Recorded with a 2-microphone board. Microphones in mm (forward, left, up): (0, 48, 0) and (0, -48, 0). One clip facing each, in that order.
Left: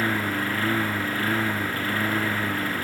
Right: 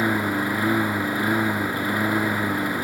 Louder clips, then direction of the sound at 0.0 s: Right 3 dB; 15° right (ahead or behind).